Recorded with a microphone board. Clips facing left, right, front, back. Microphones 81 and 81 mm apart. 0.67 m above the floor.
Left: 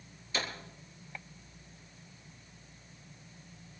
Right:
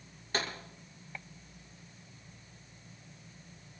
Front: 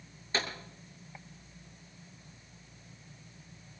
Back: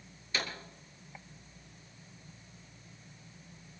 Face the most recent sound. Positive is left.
turn(degrees=-55)